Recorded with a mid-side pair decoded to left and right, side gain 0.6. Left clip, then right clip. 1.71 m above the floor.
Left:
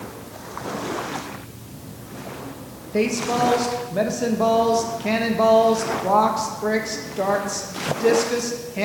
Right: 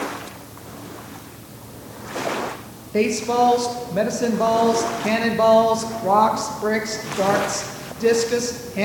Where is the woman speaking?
5° right, 1.7 m.